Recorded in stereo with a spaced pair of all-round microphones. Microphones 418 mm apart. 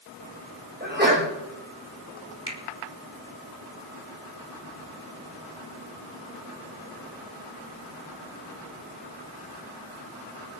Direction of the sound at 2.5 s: 35° left (ahead or behind).